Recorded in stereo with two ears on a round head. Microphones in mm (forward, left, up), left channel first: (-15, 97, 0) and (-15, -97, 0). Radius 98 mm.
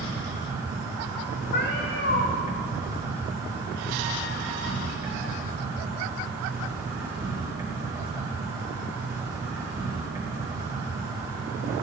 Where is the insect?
20° right (ahead or behind), 1.8 m.